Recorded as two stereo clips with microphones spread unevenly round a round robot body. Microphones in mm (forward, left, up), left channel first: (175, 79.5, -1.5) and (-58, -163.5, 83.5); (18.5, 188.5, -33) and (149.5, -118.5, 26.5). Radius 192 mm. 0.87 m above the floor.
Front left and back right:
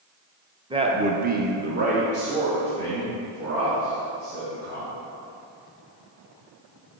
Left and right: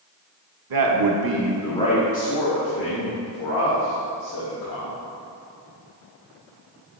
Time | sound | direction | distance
0.7 | a man speaking | 50° right | 1.0 m